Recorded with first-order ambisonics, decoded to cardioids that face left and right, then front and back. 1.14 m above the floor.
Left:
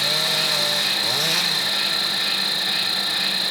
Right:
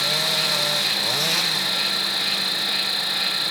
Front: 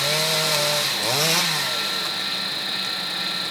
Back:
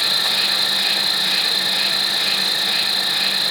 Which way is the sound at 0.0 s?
175° left.